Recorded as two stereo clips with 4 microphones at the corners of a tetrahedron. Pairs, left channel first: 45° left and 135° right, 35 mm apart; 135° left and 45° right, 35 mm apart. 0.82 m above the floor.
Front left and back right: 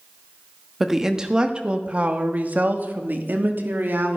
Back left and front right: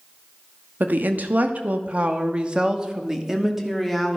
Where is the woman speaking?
55° right, 1.2 m; by 4.2 s 135° right, 1.7 m.